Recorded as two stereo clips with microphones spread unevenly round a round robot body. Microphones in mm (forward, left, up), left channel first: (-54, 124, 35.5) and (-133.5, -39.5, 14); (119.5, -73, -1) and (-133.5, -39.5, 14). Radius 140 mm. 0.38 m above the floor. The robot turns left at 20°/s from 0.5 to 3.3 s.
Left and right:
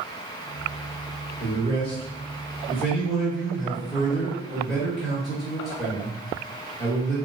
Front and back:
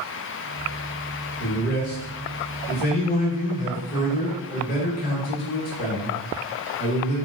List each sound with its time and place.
1.4 s a man speaking: 5° left, 1.2 m; by 7.2 s 30° right, 1.2 m